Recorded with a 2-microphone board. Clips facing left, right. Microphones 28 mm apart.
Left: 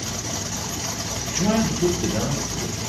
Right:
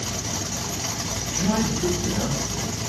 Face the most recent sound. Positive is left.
turn(degrees=60)  # may be behind; listen again after turning